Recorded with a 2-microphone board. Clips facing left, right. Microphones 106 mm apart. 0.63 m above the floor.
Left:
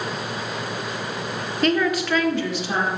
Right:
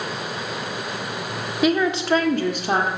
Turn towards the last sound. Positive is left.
turn(degrees=-60)  # may be behind; listen again after turning